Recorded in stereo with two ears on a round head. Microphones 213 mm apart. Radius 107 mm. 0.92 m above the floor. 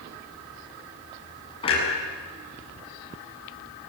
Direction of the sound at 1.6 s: 25° left (ahead or behind).